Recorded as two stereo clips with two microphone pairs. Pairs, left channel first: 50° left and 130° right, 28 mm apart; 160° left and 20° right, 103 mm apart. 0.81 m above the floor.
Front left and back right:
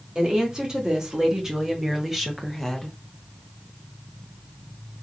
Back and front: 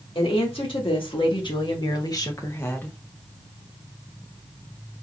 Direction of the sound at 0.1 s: 175° left.